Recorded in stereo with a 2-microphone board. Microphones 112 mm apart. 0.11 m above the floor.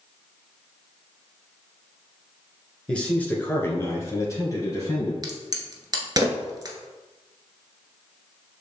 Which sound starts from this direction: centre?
A man speaking, at 2.9 s.